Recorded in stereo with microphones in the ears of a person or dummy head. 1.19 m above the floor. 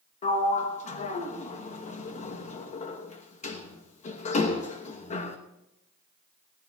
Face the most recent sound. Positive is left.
turn(degrees=40)  # may be behind; listen again after turning